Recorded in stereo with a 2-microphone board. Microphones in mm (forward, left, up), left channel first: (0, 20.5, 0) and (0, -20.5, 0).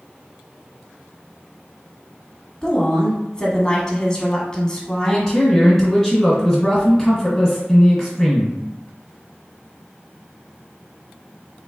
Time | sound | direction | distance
2.6 | a woman speaking | 15° left (ahead or behind) | 1.2 m
5.0 | a man speaking | centre (ahead or behind) | 1.9 m